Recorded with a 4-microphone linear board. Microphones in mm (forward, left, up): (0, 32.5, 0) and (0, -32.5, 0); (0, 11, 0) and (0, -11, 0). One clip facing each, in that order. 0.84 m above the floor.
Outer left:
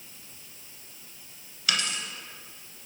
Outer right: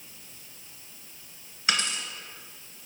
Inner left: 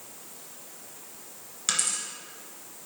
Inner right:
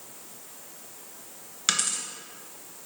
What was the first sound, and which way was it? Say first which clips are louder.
A dropped coin: outer right 1 dB, inner right 2 dB; 25° right (ahead or behind).